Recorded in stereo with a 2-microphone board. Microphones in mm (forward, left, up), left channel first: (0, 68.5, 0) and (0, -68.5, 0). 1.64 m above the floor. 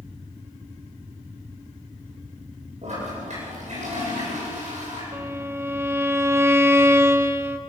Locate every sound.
2.8 s a toilet flushing: 60° right (ahead or behind), 8 m
5.1 s a violin: 20° right (ahead or behind), 1.0 m